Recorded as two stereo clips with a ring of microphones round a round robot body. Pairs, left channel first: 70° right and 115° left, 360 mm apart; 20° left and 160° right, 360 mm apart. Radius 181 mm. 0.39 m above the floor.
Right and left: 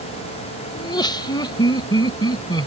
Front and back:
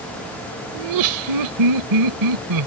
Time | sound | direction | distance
0.8 | laughter | 145° right | ?